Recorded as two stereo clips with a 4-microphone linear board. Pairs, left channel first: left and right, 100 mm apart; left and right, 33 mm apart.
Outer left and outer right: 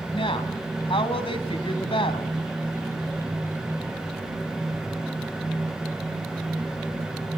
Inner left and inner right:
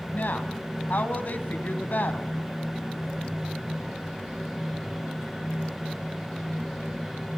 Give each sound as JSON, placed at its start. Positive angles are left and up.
{"t": 0.1, "sound": "a woman speaking", "side_deg": 60, "distance_m": 3.0}